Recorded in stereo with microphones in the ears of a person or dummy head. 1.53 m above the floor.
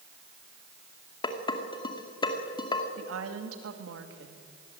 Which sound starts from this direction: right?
A woman speaking, at 3.0 s.